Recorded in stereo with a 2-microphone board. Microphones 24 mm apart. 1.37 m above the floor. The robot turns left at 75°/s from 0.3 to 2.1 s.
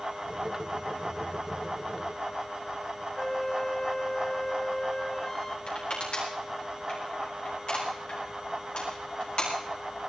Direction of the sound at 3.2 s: 25° left (ahead or behind).